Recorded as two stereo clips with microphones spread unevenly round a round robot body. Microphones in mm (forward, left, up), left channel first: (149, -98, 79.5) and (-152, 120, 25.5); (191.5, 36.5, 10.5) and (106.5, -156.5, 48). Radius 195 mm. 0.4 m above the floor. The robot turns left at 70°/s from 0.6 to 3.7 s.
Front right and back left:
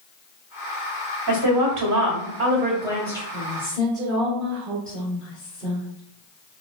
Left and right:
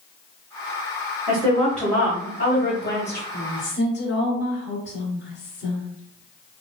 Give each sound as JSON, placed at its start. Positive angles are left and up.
{"t": 1.3, "sound": "a woman speaking", "azimuth_deg": 180, "distance_m": 1.5}
{"t": 3.3, "sound": "a woman speaking", "azimuth_deg": 90, "distance_m": 2.0}